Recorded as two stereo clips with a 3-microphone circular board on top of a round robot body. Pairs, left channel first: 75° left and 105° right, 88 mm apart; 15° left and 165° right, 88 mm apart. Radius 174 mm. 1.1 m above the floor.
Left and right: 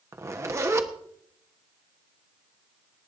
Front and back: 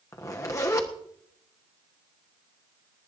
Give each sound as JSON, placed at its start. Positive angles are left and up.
{"t": 0.1, "sound": "a zipper", "azimuth_deg": -45, "distance_m": 1.2}